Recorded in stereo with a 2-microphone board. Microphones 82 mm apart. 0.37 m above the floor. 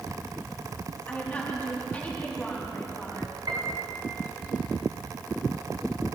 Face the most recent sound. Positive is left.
turn(degrees=-55)  # may be behind; listen again after turning